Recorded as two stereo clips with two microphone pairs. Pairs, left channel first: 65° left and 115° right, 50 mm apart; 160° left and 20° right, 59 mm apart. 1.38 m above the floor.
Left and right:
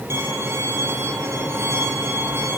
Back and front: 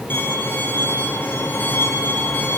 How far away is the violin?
About 6 m.